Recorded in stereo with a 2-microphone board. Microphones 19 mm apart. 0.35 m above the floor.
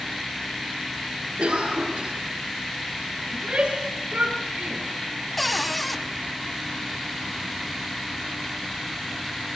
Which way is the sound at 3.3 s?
75° right (ahead or behind).